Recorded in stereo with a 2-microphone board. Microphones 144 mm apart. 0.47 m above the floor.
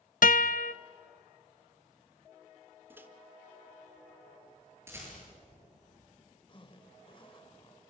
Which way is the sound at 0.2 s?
65° left (ahead or behind).